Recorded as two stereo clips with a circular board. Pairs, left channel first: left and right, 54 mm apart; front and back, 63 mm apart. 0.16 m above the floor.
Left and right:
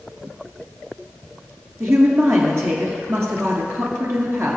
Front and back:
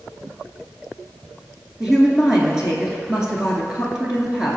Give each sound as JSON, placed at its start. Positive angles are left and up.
{"t": 1.8, "sound": "a woman speaking", "azimuth_deg": -105, "distance_m": 2.0}